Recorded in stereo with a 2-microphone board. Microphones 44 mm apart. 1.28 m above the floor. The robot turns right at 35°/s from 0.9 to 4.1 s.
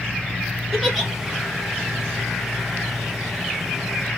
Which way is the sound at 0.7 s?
Centre (ahead or behind).